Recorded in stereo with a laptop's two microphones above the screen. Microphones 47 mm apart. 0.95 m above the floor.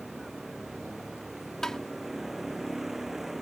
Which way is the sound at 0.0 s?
5° right (ahead or behind).